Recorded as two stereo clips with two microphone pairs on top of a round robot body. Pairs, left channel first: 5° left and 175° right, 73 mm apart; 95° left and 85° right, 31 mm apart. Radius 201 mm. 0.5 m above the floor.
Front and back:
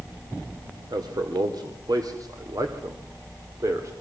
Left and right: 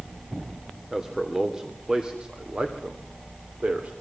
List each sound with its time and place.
0.9 s a man speaking: 165° right, 3 m; by 3.9 s 130° right, 3 m